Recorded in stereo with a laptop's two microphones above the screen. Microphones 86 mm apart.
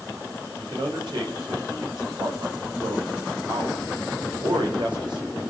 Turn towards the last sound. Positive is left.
turn(degrees=-70)  # may be behind; listen again after turning